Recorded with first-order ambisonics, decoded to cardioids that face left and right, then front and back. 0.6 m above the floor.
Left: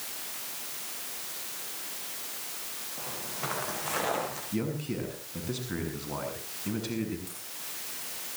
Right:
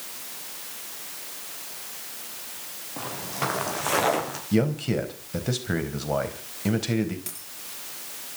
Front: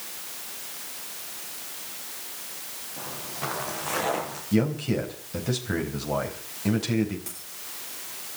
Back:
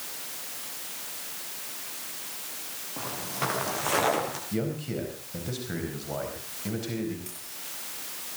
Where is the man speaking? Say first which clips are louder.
Right 14 dB, front 11 dB; 70° right, 4 m.